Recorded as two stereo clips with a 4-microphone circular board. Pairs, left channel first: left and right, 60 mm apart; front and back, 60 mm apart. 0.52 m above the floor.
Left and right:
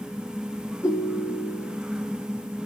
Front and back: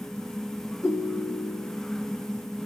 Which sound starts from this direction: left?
A ringtone, at 0.8 s.